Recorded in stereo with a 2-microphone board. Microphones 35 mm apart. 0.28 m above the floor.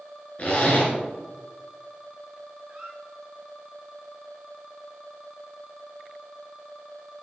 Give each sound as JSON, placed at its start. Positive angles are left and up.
{"t": 0.4, "sound": "a zipper", "side_deg": 40, "distance_m": 2.0}
{"t": 2.7, "sound": "a squeak", "side_deg": -25, "distance_m": 1.5}